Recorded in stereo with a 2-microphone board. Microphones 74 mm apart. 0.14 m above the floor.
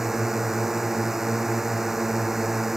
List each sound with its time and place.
0.0 s a drone: 5° right (ahead or behind)